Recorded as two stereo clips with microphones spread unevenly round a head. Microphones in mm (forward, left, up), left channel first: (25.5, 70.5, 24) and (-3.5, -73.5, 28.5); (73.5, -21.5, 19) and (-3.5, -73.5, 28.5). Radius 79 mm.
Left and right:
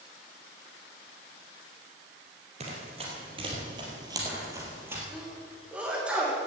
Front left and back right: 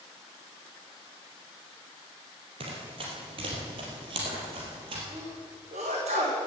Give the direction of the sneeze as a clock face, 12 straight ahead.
6 o'clock.